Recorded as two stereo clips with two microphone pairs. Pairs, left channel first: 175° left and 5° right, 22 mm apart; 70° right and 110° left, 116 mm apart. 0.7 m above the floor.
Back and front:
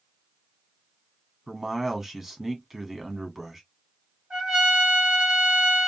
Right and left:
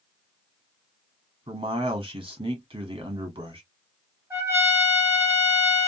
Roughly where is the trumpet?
Ahead left.